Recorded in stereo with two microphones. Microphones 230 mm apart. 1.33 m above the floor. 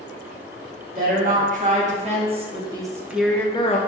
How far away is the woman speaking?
About 1.6 m.